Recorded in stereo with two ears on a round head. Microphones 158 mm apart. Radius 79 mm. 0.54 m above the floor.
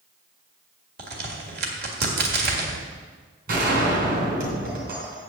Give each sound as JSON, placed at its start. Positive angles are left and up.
{"t": 1.0, "sound": "a crack", "side_deg": -60, "distance_m": 1.8}
{"t": 3.5, "sound": "a gunshot", "side_deg": -55, "distance_m": 3.5}